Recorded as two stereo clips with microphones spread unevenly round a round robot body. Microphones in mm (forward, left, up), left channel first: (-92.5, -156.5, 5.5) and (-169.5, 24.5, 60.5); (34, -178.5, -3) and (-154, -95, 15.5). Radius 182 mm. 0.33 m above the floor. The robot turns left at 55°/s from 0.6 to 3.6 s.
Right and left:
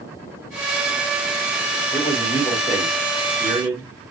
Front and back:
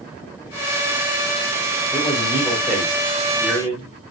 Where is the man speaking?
60° right, 1.6 m; by 3.9 s 150° right, 1.6 m.